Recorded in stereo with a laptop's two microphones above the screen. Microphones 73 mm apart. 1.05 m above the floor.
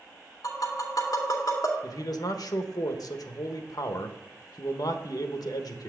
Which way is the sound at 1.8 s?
70° left (ahead or behind).